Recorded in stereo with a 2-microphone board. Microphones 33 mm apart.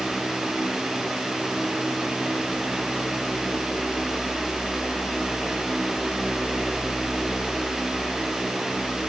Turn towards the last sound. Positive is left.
No sound to turn to.